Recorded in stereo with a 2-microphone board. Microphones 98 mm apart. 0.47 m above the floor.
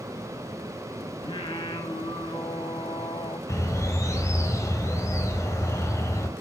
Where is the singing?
75° left (ahead or behind), 2.5 m.